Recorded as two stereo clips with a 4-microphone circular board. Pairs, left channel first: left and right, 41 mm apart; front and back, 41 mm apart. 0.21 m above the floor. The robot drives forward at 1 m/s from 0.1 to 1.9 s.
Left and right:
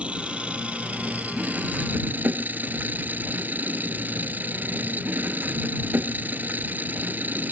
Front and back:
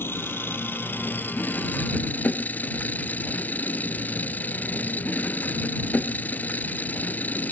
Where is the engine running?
30° right; by 7.5 s 45° right.